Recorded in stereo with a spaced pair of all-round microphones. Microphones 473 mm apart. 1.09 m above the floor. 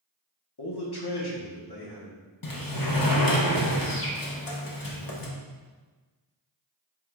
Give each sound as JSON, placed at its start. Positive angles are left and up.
{"t": 0.6, "sound": "a man speaking", "side_deg": 60, "distance_m": 1.1}
{"t": 2.4, "sound": "a sliding door", "side_deg": 50, "distance_m": 0.7}